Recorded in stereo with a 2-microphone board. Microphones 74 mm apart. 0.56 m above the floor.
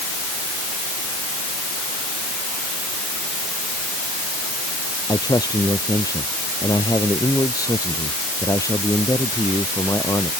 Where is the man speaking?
60° left (ahead or behind); by 10.3 s 45° left (ahead or behind).